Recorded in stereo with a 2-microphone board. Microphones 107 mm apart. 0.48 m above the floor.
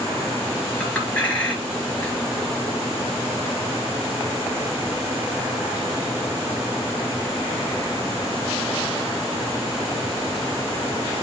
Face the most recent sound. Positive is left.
turn(degrees=10)  # may be behind; listen again after turning